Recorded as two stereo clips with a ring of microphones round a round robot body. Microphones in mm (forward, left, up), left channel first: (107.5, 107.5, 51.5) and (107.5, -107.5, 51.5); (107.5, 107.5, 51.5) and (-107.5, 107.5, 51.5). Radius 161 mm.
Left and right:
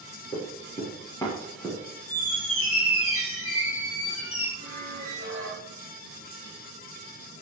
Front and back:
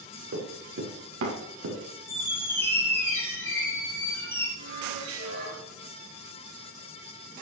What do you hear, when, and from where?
0.3 s running footsteps: 160° left, 4.5 m; by 1.8 s straight behind, 3.5 m
2.1 s a squeak: 80° left, 3.5 m
4.6 s a squeak: 165° right, 5 m